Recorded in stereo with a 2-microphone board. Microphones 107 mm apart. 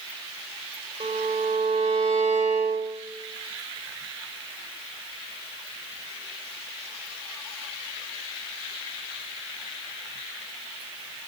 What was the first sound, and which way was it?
A violin, 85° right.